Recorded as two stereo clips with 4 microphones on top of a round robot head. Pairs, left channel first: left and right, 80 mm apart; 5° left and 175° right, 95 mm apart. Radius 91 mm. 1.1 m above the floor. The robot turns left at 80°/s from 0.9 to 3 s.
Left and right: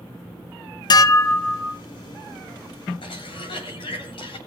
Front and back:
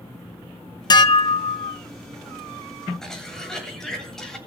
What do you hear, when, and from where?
0.9 s dishes clattering: 55° left, 0.7 m; by 1.8 s 20° right, 0.7 m
3.0 s a cough: 90° left, 8 m